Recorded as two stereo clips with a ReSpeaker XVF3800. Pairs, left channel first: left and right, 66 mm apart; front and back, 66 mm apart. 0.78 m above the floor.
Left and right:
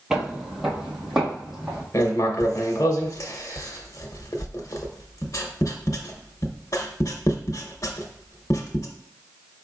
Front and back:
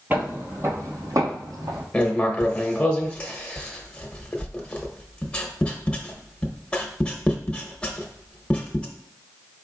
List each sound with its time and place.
0.1 s footsteps: 170° right, 0.8 m; by 1.8 s 175° right, 1.9 m
1.9 s writing: 70° left, 0.8 m